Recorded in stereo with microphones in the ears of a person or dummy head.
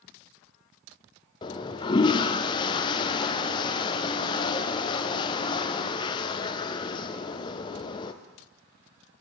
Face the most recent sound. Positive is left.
turn(degrees=25)  # may be behind; listen again after turning